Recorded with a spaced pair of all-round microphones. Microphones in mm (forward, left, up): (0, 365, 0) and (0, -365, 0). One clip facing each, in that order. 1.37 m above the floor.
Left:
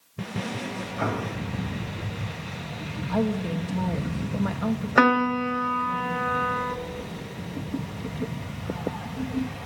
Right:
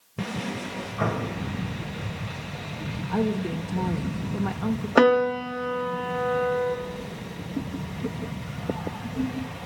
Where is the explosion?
65° right (ahead or behind), 2 m.